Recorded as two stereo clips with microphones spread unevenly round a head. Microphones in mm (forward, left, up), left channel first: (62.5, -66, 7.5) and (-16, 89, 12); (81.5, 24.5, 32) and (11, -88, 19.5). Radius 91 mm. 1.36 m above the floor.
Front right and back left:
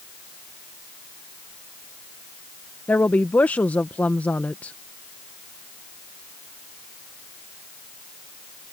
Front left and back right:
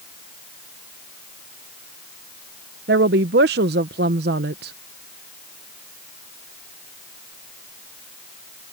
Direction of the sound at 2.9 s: 145° right.